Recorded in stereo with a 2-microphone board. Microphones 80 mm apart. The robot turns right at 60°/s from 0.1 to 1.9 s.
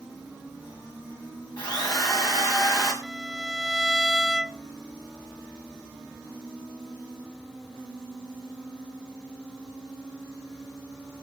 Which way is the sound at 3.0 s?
5° right (ahead or behind).